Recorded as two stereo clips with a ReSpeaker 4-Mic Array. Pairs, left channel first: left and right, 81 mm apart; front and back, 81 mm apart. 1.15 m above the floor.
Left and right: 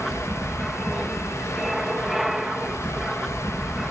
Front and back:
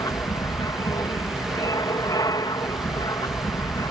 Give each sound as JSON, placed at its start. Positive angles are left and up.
{"t": 0.0, "sound": "an aircraft", "azimuth_deg": -5}